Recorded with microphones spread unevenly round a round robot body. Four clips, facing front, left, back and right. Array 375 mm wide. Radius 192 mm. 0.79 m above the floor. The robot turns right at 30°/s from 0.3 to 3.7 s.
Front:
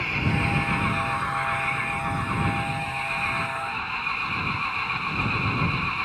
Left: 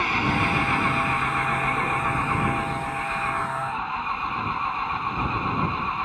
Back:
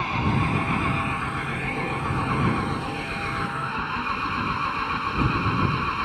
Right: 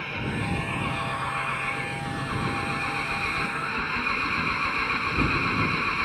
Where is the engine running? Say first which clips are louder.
Left 8 dB, back 2 dB; 105° left; by 6.0 s 155° right.